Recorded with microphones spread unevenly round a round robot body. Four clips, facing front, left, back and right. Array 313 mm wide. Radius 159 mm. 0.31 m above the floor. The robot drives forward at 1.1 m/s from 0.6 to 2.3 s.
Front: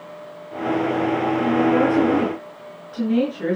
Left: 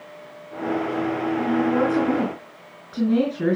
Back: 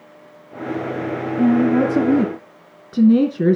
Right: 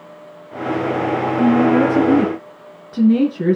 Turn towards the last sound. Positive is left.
turn(degrees=-165)